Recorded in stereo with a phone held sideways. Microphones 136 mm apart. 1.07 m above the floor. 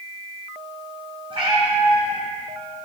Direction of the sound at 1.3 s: 40° right (ahead or behind).